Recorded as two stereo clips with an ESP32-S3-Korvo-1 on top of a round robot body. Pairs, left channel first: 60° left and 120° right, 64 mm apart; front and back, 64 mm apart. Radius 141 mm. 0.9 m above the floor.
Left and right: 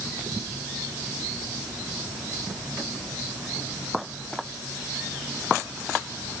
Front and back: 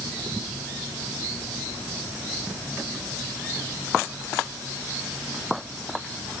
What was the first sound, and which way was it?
Only background noise.